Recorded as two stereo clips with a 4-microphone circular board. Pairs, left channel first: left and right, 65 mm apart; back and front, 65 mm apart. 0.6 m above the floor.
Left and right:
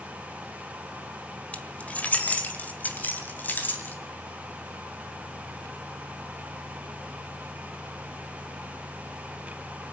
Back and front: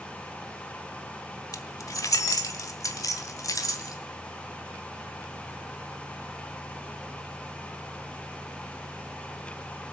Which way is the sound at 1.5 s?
155° left.